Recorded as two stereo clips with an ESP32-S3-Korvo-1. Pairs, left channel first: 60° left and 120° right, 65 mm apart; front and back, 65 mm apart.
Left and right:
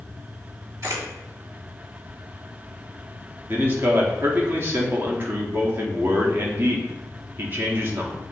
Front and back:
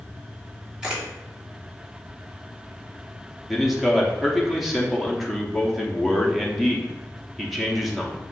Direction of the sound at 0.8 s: 105° right.